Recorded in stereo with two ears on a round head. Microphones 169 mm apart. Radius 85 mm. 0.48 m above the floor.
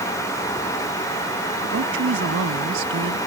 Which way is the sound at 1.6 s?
75° right (ahead or behind).